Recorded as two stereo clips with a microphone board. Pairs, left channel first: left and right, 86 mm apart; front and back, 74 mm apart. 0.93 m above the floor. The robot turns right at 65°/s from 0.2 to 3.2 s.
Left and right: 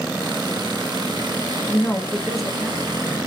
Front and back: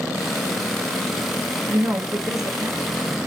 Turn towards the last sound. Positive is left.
turn(degrees=-125)